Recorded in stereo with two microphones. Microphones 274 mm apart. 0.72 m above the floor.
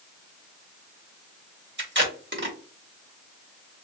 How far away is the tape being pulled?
About 1.1 m.